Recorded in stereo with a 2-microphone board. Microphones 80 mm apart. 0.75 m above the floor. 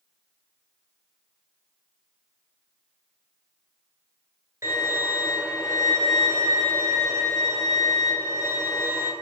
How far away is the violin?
About 1.2 m.